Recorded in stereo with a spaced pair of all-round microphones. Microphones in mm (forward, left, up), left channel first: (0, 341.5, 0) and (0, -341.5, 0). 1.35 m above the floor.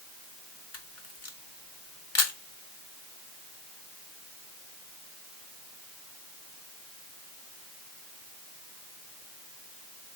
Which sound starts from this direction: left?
A camera shutter, at 0.7 s.